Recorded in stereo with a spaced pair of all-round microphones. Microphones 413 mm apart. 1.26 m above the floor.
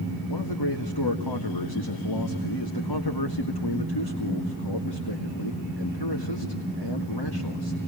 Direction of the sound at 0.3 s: 60° left (ahead or behind).